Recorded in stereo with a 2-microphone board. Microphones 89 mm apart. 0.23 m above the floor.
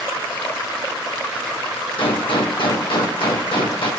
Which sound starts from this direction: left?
A gunshot, at 2.0 s.